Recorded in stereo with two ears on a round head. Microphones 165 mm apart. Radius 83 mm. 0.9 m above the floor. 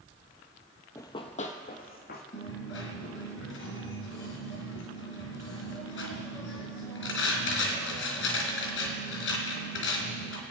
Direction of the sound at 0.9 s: 15° left (ahead or behind).